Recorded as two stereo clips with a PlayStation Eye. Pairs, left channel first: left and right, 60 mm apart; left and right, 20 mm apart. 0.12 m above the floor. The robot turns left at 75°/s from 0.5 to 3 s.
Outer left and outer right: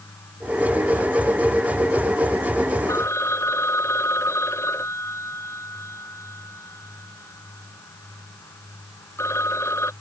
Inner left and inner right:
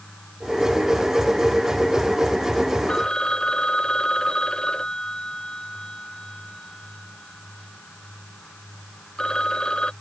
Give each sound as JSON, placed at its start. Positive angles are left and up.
{"t": 2.9, "sound": "a phone ringing", "side_deg": 55}